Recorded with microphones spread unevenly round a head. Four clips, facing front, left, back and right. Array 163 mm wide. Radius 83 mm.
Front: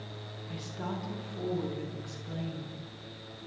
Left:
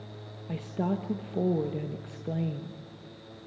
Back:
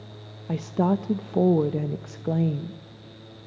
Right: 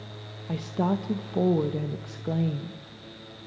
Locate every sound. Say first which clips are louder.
0.5 s a woman speaking: right 4 dB, back 15 dB; 170° right, 0.9 m